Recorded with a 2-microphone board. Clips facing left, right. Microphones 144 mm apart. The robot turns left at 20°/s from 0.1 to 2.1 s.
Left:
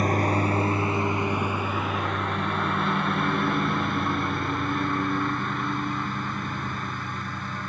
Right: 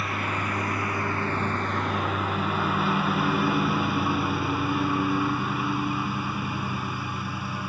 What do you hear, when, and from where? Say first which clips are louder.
0.0 s a lawn mower: left 7 dB; 40° left (ahead or behind); by 7.7 s 10° right (ahead or behind)